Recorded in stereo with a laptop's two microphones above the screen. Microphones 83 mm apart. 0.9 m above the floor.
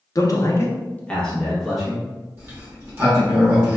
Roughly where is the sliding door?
Right.